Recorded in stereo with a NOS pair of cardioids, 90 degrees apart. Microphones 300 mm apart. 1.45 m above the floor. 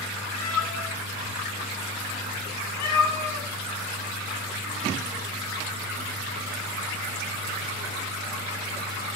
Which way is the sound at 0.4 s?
70° left.